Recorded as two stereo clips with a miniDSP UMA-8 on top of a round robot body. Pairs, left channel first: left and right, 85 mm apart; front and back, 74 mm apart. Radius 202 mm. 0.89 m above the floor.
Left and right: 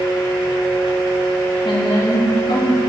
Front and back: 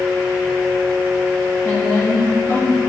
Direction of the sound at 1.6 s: 65° left.